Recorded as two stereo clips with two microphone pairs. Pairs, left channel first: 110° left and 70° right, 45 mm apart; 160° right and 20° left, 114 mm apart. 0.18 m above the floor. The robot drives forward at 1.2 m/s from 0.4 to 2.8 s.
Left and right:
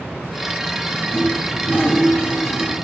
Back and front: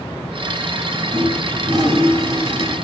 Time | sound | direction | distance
1.1 | a toilet flushing | 70° left | 8.5 m